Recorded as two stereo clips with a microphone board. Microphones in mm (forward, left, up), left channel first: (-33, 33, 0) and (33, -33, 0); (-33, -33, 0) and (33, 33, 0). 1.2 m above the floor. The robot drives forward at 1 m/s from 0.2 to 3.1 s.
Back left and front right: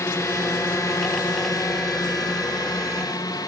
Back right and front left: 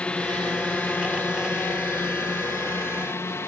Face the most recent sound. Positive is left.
turn(degrees=170)